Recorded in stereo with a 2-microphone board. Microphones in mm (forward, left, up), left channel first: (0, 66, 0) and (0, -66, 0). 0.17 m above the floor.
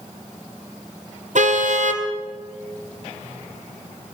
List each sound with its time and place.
1.4 s a car horn: 65° right (ahead or behind), 2.5 m